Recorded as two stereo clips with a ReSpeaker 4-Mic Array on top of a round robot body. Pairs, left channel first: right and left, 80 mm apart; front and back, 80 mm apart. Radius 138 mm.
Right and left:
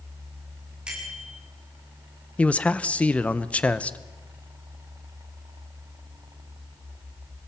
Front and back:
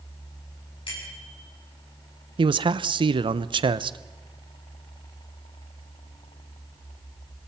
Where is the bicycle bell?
10° left, 8.5 m.